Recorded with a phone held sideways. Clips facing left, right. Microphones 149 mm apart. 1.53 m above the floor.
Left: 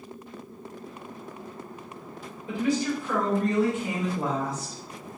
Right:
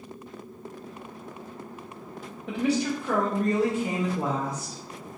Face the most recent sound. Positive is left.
turn(degrees=-20)  # may be behind; listen again after turning